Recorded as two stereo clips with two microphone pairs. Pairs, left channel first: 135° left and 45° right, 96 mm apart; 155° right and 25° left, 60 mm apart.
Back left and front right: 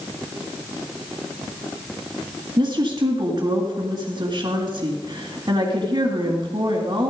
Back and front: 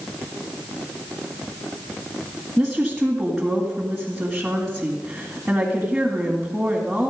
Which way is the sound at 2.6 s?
60° right.